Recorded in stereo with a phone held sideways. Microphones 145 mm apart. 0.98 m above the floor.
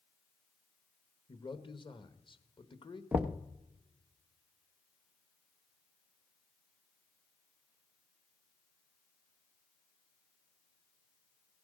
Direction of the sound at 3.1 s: 10° right (ahead or behind).